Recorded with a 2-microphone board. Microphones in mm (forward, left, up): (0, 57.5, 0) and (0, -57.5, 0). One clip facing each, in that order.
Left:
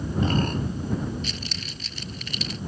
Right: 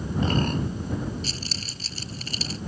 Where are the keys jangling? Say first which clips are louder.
Even; 40° right (ahead or behind).